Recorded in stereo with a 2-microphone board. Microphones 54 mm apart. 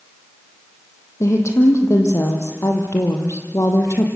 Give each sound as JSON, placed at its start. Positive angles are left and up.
{"t": 1.2, "sound": "a woman speaking", "side_deg": 65, "distance_m": 5.0}